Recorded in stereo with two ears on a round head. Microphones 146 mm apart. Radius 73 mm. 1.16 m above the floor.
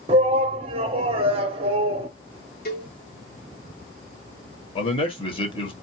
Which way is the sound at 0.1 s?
35° right (ahead or behind).